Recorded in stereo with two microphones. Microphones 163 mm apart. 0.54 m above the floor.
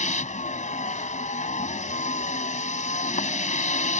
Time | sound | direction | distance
0.0 | a vehicle | 50° left (ahead or behind) | ?